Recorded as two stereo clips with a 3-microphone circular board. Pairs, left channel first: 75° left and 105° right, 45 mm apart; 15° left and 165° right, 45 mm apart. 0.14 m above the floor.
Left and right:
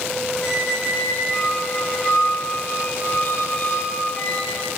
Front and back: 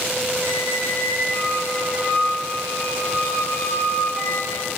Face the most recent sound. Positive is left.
turn(degrees=65)